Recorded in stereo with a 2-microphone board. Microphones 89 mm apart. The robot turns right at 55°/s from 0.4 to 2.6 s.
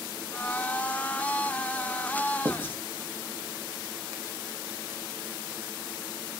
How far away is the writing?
About 0.5 m.